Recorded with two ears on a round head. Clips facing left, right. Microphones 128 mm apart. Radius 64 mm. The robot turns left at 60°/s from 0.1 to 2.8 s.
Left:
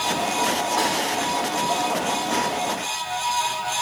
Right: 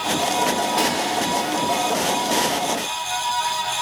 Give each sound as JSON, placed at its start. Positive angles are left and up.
{"t": 0.8, "sound": "a snare drum", "side_deg": -20, "distance_m": 1.3}